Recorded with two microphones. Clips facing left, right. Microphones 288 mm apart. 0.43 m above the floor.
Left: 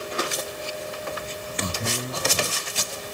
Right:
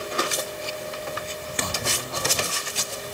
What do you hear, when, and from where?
1.6 s a man speaking: 30° left (ahead or behind); by 3.1 s 50° left (ahead or behind)